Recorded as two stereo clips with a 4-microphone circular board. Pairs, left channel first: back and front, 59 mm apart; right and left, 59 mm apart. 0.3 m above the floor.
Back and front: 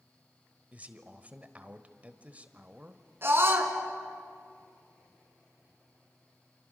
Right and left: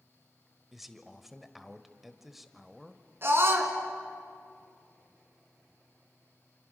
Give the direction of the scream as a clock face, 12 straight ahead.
10 o'clock.